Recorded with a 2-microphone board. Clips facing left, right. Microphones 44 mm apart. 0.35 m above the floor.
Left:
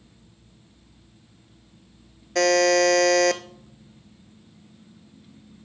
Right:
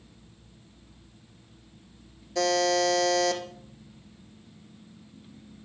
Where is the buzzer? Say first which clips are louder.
Left 6 dB; 80° left, 0.8 m.